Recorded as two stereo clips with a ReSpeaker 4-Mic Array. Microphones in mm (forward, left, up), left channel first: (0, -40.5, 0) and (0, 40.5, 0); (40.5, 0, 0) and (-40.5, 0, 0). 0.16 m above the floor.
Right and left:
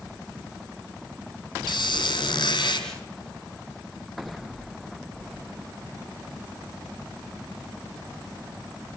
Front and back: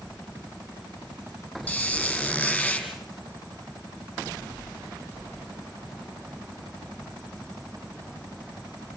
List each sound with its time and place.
1.7 s a squeak: 75° right, 4.5 m